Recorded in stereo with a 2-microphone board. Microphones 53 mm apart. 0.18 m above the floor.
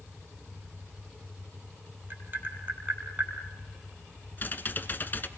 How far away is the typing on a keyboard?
About 1.2 m.